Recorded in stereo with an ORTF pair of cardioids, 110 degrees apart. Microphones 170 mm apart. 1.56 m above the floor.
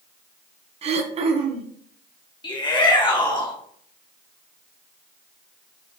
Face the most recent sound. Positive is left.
turn(degrees=30)